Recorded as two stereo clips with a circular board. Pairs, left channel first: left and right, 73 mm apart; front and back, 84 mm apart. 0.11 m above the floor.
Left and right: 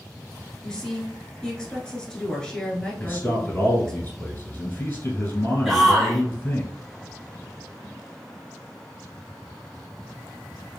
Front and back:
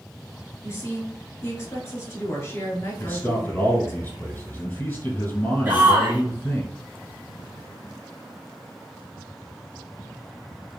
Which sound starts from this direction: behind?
A shout, at 5.7 s.